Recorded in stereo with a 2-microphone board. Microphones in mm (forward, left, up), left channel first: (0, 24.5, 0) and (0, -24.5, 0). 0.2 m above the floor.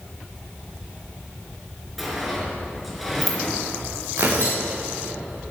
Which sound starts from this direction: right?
Tearing paper, at 4.2 s.